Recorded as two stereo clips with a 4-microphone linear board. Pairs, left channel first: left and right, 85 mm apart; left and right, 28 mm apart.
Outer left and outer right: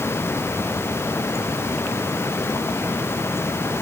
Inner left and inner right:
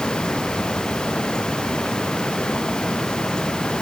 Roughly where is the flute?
I don't hear a flute.